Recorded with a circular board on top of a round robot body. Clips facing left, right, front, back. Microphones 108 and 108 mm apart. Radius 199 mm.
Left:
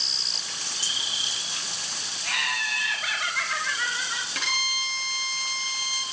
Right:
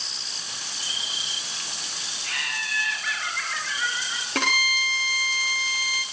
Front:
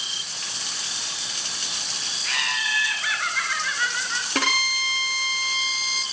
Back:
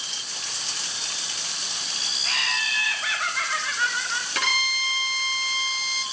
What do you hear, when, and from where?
2.2 s laughter: 120° left, 9.5 m
4.3 s a violin: 50° right, 1.7 m